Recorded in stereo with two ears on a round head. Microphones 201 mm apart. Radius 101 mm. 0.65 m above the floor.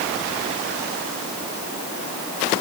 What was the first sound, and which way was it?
Only background noise.